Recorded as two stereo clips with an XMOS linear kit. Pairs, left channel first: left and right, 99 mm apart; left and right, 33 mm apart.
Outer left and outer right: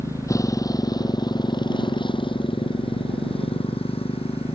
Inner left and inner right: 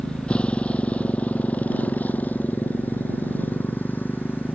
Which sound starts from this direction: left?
A motorcycle, at 0.0 s.